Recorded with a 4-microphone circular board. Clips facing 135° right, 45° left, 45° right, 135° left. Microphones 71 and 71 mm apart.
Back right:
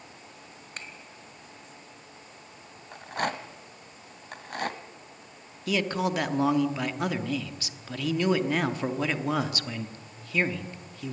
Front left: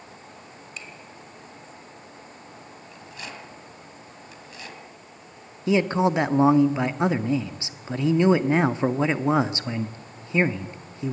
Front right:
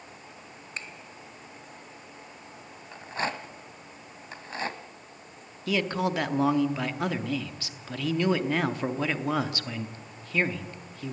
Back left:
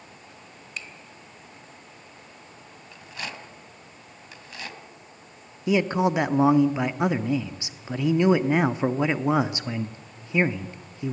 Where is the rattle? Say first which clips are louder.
Back right 11 dB, front right 6 dB; 100° right, 1.3 m.